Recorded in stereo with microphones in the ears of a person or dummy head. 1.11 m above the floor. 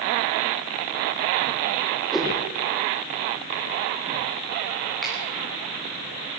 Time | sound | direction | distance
2.1 | a whoosh | 5° left (ahead or behind) | 2.5 m
5.0 | a finger snap | 10° left (ahead or behind) | 8.5 m